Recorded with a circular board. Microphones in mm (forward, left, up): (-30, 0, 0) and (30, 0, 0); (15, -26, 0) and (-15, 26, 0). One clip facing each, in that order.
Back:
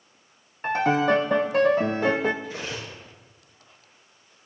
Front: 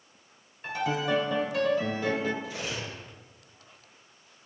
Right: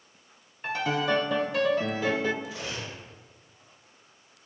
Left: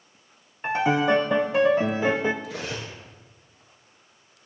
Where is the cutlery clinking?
135° left, 3.5 m.